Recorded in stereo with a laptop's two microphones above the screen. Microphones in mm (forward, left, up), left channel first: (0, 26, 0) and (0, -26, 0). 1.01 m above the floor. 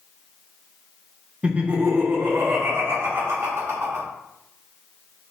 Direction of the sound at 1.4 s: 25° right (ahead or behind).